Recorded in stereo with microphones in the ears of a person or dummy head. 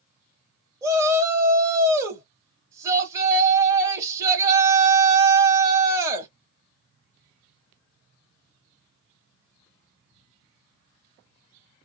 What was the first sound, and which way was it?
A shout, 20° right (ahead or behind).